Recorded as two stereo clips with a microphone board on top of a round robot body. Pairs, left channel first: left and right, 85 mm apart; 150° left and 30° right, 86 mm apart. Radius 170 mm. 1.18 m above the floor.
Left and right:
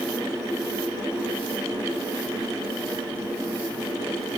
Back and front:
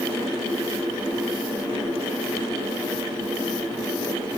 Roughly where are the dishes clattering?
I don't hear dishes clattering.